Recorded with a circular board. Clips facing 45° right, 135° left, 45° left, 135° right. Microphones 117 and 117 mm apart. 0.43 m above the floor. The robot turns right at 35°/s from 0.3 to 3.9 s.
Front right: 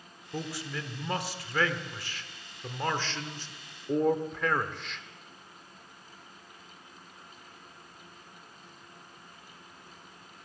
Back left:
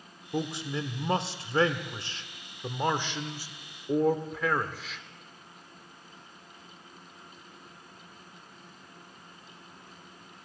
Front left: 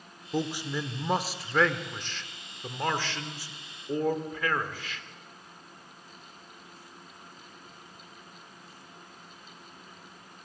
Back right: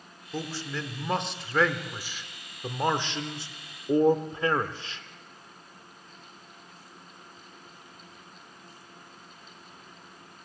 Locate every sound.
0.3 s a man speaking: 95° left, 0.8 m; by 5.0 s 140° right, 0.8 m